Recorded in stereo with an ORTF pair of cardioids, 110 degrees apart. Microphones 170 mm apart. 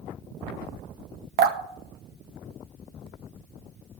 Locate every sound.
1.4 s dripping: 60° right, 1.1 m